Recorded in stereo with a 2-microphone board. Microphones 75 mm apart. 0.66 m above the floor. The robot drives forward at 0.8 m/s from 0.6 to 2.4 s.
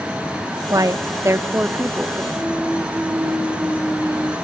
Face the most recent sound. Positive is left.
turn(degrees=-5)  # may be behind; listen again after turning